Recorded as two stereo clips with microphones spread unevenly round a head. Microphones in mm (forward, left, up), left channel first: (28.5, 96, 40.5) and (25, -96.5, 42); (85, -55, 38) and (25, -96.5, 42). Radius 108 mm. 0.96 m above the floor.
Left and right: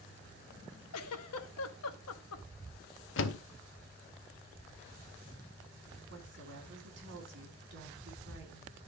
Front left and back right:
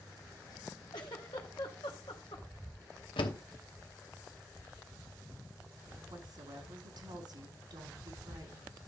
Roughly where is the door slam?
Ahead left.